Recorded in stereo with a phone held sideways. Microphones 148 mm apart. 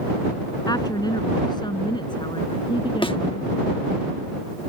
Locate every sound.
0.7 s a woman speaking: 25° left (ahead or behind); by 3.5 s 35° left (ahead or behind)
3.0 s a thud: 35° left (ahead or behind)